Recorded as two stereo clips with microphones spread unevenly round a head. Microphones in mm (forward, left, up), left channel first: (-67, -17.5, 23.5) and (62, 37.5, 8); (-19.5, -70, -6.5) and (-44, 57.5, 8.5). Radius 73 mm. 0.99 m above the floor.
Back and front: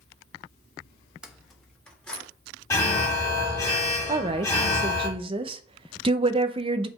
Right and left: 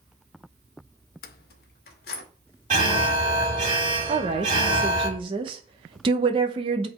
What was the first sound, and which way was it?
Keys jangling, 60° right.